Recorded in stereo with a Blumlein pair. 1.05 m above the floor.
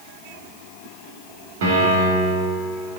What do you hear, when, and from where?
1.6 s a piano: 55° right, 3 m